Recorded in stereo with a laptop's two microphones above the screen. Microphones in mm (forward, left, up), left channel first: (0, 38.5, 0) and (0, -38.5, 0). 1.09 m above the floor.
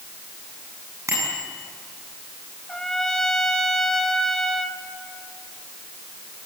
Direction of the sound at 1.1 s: 40° right (ahead or behind).